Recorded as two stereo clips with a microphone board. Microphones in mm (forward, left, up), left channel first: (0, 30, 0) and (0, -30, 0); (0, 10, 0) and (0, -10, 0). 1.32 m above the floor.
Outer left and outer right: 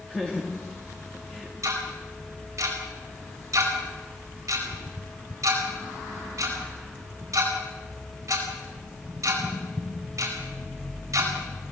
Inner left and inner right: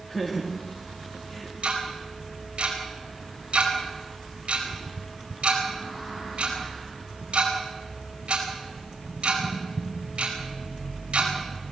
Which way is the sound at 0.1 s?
20° left (ahead or behind).